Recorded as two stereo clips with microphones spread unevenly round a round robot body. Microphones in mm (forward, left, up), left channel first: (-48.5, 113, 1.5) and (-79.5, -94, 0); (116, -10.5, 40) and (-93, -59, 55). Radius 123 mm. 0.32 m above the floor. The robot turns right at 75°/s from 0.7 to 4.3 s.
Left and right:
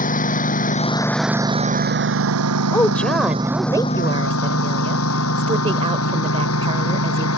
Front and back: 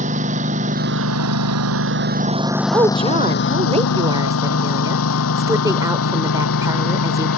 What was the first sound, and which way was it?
A lawn mower, 130° left.